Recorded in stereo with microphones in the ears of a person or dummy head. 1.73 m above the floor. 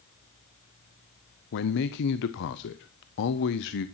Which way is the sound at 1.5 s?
65° left (ahead or behind).